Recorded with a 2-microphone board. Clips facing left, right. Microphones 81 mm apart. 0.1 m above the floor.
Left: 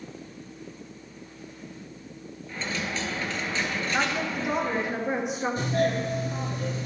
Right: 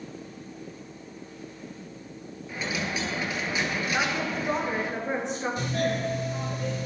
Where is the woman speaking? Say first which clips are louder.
Left 2 dB; 10° left (ahead or behind), 1.1 m.